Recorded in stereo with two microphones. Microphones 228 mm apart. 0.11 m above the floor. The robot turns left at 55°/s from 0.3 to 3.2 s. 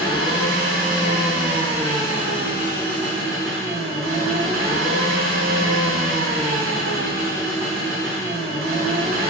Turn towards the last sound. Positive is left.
turn(degrees=-65)